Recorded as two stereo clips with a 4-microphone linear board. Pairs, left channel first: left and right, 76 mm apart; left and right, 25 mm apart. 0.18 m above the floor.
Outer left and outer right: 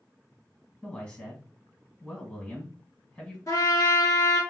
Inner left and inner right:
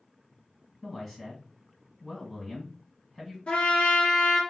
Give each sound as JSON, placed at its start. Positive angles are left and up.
{"t": 0.8, "sound": "a man speaking", "side_deg": 15, "distance_m": 1.4}
{"t": 3.5, "sound": "a trumpet", "side_deg": 45, "distance_m": 1.3}